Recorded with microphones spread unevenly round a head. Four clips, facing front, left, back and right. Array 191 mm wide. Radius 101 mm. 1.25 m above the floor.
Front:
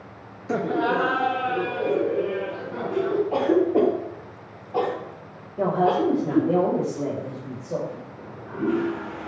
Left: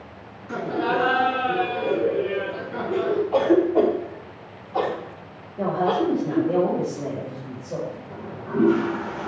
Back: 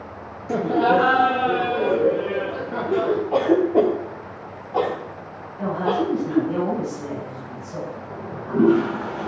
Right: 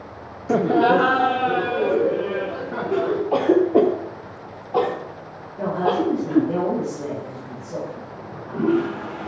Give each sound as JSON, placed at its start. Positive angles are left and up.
{"t": 0.5, "sound": "laughter", "azimuth_deg": -85, "distance_m": 0.5}
{"t": 3.3, "sound": "a cough", "azimuth_deg": -85, "distance_m": 3.0}
{"t": 5.6, "sound": "a woman speaking", "azimuth_deg": 10, "distance_m": 5.0}
{"t": 8.1, "sound": "a toilet flushing", "azimuth_deg": 165, "distance_m": 1.3}